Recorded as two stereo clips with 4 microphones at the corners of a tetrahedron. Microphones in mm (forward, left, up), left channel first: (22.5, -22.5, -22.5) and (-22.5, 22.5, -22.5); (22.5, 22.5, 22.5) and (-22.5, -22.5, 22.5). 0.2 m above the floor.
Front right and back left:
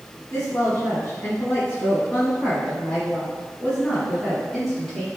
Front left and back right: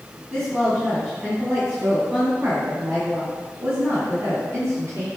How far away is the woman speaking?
About 1.9 m.